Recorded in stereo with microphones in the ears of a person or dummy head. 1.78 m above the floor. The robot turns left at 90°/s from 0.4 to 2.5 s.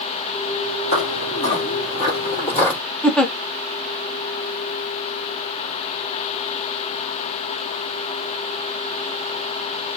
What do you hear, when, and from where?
0.9 s footsteps: 35° left (ahead or behind), 2.5 m; by 2.8 s 10° left (ahead or behind), 3 m
3.0 s a giggle: 5° left (ahead or behind), 0.8 m